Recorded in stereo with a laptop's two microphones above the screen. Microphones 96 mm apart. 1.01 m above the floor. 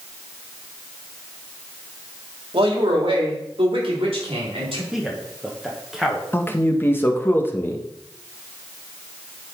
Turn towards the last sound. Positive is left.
turn(degrees=20)  # may be behind; listen again after turning